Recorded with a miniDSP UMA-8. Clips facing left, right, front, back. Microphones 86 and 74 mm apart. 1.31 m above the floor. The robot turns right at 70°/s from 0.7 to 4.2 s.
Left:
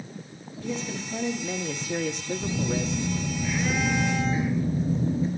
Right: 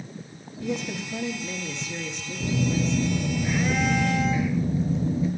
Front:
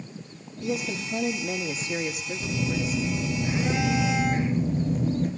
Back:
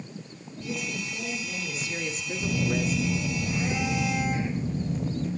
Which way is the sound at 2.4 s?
90° right.